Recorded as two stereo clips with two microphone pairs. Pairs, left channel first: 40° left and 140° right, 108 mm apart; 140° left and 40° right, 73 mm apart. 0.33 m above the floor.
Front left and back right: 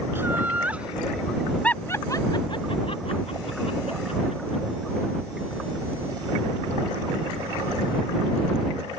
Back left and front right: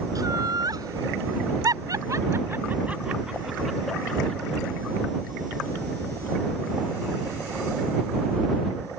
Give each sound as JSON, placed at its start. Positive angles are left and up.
{"t": 0.1, "sound": "laughter", "azimuth_deg": -70}